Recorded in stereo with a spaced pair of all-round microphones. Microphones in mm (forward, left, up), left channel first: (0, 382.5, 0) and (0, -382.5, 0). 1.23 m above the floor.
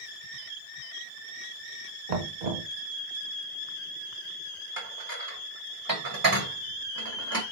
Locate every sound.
2.1 s knocking: 60° right (ahead or behind), 0.6 m
4.8 s dishes clattering: 30° right (ahead or behind), 0.9 m